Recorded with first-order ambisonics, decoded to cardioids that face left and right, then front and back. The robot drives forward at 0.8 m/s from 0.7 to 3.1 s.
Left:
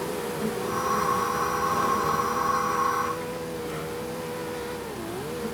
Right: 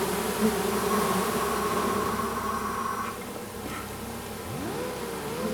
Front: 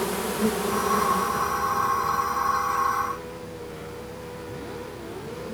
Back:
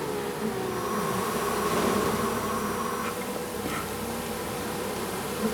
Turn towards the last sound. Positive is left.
turn(degrees=-170)